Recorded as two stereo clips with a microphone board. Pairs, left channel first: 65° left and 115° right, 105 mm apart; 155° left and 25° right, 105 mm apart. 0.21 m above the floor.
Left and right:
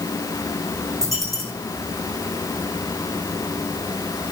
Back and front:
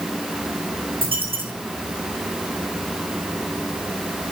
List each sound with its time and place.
1.0 s a dropped coin: 55° right, 6 m